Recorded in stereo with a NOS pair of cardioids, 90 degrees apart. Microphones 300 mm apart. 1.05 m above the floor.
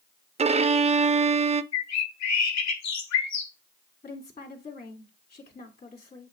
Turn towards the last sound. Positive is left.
turn(degrees=25)